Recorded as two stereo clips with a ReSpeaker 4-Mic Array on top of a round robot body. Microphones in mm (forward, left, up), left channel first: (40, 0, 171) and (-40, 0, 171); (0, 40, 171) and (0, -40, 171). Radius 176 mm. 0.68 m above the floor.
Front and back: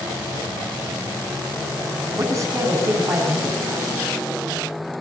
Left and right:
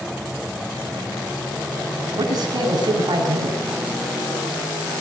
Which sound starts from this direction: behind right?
A man speaking, at 2.1 s.